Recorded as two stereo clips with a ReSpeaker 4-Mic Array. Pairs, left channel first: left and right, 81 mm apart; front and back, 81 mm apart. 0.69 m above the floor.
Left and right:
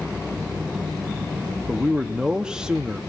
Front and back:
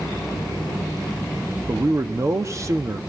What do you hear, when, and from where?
1.7 s a man speaking: 165° right, 0.7 m